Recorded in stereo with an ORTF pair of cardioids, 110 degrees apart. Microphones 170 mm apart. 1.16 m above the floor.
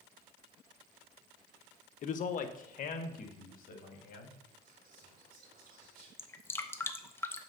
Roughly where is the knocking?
No knocking in this recording.